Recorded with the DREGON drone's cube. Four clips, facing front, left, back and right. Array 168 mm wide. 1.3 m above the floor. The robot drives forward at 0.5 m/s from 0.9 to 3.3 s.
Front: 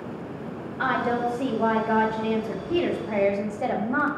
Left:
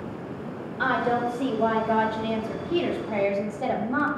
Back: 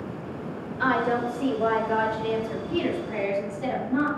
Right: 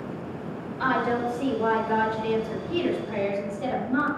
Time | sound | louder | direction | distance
0.8 | a woman speaking | left 1 dB, even | 20° left | 2.5 m